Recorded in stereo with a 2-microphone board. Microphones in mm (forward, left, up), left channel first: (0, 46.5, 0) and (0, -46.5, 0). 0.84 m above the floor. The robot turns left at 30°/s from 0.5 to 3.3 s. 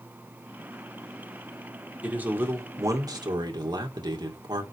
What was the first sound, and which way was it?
A man speaking, 15° right.